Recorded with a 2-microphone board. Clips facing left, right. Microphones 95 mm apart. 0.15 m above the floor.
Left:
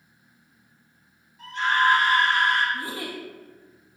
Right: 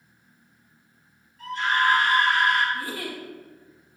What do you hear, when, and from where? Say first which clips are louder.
1.4 s a scream: left 1 dB; 25° left (ahead or behind), 1.7 m; by 2.6 s 30° left (ahead or behind), 2.5 m
2.7 s a giggle: even; 25° left (ahead or behind), 0.9 m